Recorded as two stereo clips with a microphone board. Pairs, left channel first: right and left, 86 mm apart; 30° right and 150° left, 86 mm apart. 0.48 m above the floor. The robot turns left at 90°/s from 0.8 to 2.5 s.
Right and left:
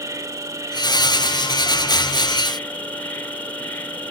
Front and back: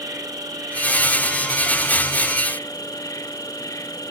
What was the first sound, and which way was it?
An insect, 130° left.